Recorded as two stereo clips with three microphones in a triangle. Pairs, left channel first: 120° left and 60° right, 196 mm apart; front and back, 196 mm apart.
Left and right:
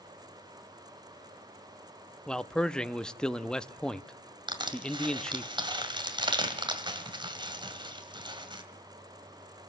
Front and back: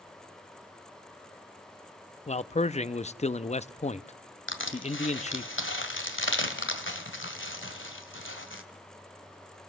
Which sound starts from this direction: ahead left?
A man speaking, at 2.3 s.